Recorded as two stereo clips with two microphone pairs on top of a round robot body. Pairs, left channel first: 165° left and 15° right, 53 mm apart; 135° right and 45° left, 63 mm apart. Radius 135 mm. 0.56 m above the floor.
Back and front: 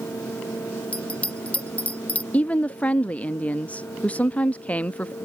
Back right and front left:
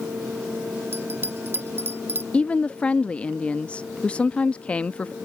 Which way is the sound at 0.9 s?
100° left.